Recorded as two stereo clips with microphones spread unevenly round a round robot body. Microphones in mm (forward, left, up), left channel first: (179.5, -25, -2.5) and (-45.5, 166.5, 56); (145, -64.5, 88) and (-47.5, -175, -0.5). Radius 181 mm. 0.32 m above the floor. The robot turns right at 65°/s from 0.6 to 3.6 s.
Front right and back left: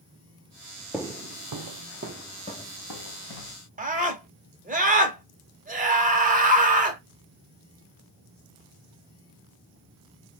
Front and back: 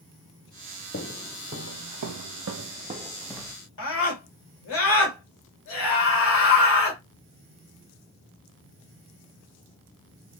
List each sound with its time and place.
0.9 s footsteps: 60° left, 0.6 m; by 3.6 s 35° right, 1.3 m
3.8 s a scream: 70° left, 1.7 m